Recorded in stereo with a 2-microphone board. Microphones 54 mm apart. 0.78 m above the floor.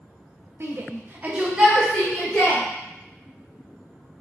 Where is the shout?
45° right (ahead or behind), 0.8 m; by 2.6 s 10° left (ahead or behind), 1.3 m.